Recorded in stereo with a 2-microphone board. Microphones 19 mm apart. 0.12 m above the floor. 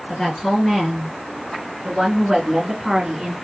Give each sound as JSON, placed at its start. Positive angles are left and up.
{"t": 0.1, "sound": "a woman speaking", "side_deg": 30, "distance_m": 2.0}